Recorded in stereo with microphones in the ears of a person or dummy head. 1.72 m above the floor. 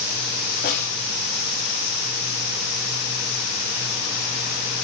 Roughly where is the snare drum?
Left.